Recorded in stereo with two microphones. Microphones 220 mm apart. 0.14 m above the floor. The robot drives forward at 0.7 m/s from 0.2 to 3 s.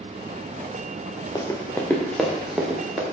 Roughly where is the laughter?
I don't hear laughter.